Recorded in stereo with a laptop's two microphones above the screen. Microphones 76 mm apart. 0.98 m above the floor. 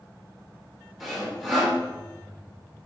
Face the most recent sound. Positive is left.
turn(degrees=0)  # may be behind; listen again after turning